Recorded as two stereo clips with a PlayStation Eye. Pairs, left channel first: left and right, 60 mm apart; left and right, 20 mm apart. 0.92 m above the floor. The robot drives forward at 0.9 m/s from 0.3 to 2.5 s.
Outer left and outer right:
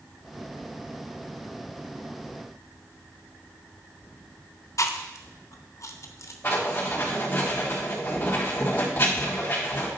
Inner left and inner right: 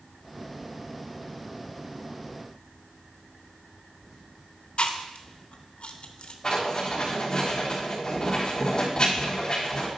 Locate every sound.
4.8 s chewing: 65° left (ahead or behind), 0.7 m
6.4 s writing: 35° left (ahead or behind), 3.5 m